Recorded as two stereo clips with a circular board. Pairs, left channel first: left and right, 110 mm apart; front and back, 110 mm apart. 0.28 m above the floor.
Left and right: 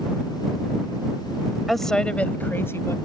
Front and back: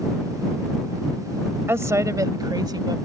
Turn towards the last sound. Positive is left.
turn(degrees=145)